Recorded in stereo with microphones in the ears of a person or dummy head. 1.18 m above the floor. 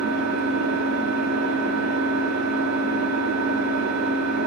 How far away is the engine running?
About 1.6 m.